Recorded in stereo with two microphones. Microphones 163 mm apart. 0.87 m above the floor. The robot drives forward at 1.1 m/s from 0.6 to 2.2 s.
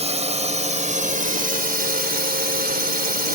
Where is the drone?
45° right (ahead or behind); by 3.4 s 75° right (ahead or behind).